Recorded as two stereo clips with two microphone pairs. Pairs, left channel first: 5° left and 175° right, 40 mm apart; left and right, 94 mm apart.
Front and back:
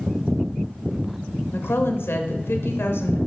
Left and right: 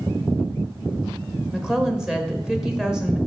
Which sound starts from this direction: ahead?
A woman speaking, at 1.5 s.